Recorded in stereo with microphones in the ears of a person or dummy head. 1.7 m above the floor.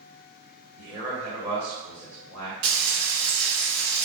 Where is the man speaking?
30° right (ahead or behind), 1.3 m.